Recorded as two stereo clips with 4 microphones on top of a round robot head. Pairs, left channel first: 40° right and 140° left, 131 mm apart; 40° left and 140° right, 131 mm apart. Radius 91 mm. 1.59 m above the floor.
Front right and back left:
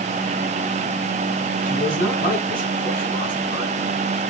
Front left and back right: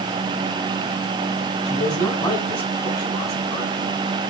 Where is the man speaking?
15° right, 7 m; by 3.8 s 20° right, 10 m.